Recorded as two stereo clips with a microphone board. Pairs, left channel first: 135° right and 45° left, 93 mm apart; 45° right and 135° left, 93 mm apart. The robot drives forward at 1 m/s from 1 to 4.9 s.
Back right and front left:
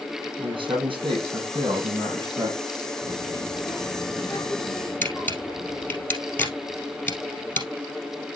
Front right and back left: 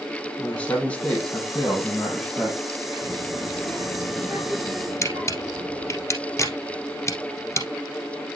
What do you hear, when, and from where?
0.4 s a man speaking: 30° left, 4.5 m; by 2.6 s 45° left, 3 m
3.0 s a child speaking: straight behind, 3 m
5.0 s a camera shutter: 80° right, 2 m